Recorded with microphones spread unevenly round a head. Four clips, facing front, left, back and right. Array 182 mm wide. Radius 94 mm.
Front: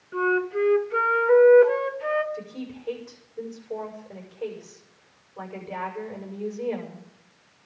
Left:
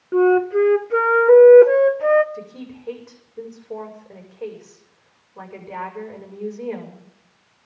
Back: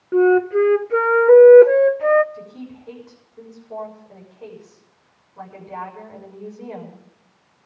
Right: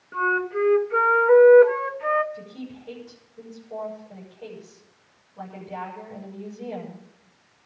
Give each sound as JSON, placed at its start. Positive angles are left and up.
{"t": 0.1, "sound": "a flute", "azimuth_deg": 135, "distance_m": 0.5}
{"t": 2.3, "sound": "a woman speaking", "azimuth_deg": 80, "distance_m": 6.5}